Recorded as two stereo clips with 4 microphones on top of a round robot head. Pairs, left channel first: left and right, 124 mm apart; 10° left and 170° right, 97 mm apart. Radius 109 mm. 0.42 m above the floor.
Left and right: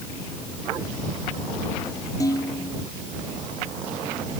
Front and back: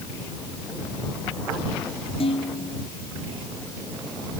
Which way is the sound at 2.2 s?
30° left.